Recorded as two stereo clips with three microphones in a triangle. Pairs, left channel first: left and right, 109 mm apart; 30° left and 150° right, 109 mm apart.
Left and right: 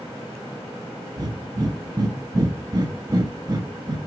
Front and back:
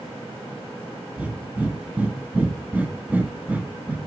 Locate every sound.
1.2 s breathing: 85° right, 0.7 m